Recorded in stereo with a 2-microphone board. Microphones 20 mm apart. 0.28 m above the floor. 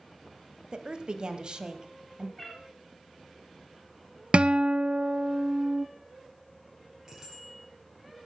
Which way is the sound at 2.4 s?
15° left (ahead or behind).